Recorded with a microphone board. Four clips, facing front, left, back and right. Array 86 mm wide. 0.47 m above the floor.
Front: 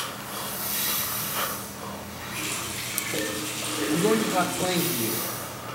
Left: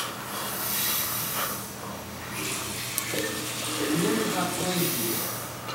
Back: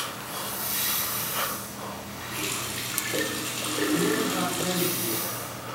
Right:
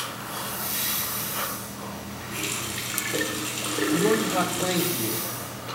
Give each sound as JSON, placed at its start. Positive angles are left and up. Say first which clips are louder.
{"t": 2.3, "sound": "a running tap", "louder": "right 1 dB, back 1 dB", "azimuth_deg": -125, "distance_m": 3.5}
{"t": 3.9, "sound": "a man speaking", "louder": "right 3 dB, front 4 dB", "azimuth_deg": -40, "distance_m": 1.7}